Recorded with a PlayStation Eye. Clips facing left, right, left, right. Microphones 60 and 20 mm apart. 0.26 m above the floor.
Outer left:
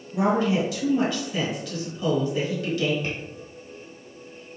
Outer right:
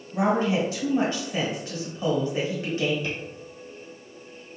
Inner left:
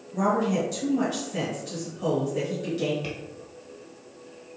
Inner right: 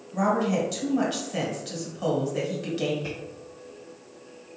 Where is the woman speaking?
35° right (ahead or behind), 1.4 m.